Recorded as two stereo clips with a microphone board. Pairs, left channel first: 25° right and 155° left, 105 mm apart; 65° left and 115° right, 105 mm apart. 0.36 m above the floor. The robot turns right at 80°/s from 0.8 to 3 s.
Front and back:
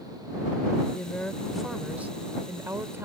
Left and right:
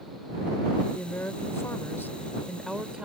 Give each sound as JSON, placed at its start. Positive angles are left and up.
{"t": 0.9, "sound": "a woman speaking", "azimuth_deg": 15}